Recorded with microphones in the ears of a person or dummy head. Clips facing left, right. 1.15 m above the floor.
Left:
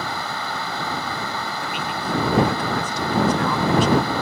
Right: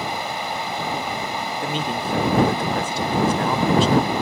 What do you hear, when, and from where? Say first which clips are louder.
0.0 s running water: right 2 dB; 20° right (ahead or behind)
1.6 s a man speaking: right 3 dB; 15° right (ahead or behind)